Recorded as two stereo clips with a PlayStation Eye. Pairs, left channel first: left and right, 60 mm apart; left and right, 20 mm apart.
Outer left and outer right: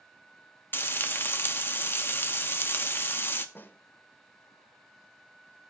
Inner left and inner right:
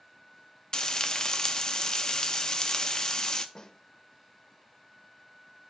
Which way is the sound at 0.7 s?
40° left (ahead or behind).